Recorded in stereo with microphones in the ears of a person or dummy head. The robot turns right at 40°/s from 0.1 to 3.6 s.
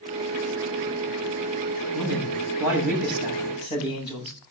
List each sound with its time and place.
1.9 s a man speaking: 40° right, 8 m; by 4.3 s 25° left, 8 m